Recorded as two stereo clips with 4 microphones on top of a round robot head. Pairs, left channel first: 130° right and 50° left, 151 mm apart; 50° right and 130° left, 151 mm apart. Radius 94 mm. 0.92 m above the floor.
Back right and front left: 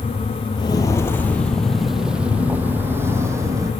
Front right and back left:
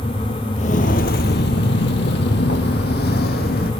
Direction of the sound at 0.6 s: 75° right.